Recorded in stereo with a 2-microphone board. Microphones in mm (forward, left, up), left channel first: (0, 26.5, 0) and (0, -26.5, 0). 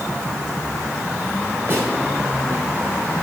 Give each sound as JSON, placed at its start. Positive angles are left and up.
{"t": 1.7, "sound": "a snare drum", "side_deg": -40, "distance_m": 4.5}